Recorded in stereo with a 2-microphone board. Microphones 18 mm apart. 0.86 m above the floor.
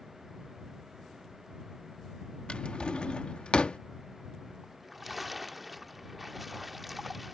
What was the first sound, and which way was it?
A drawer, 85° left.